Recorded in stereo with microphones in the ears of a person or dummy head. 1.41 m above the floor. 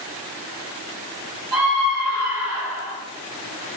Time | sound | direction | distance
1.5 | a scream | 25° right (ahead or behind) | 5 m